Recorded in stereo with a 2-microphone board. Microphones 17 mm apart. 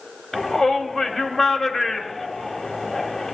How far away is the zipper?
No zipper in this recording.